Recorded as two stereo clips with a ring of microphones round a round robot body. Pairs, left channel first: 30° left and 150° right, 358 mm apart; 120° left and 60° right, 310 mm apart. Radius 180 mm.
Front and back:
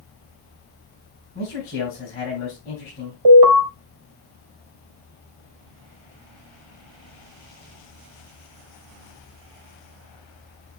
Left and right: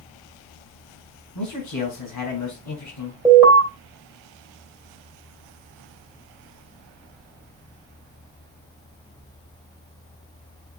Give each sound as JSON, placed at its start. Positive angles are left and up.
{"t": 1.4, "sound": "a man speaking", "azimuth_deg": 95, "distance_m": 5.0}
{"t": 3.2, "sound": "an alarm", "azimuth_deg": -145, "distance_m": 2.5}